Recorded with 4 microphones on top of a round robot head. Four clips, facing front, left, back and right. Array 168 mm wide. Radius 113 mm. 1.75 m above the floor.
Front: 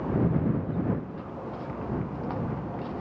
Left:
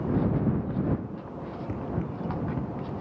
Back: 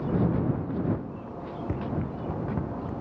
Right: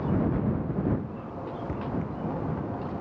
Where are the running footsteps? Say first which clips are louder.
Even, back 2 dB; 175° left; by 2.9 s 160° left.